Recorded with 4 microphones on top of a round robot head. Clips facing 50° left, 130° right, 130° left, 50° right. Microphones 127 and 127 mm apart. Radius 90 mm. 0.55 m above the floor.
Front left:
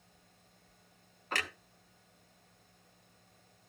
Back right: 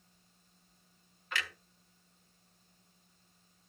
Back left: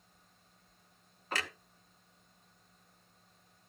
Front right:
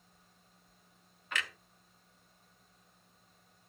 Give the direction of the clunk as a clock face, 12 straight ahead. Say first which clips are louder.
Front left 2 dB, back left 2 dB; 9 o'clock.